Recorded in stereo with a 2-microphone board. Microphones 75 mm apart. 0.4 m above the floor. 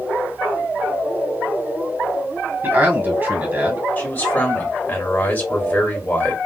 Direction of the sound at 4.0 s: 25° left (ahead or behind).